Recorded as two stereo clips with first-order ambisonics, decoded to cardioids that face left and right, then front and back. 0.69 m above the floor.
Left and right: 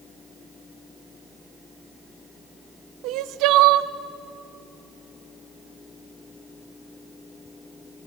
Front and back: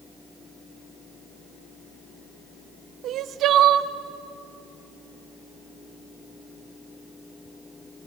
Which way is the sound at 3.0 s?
125° right.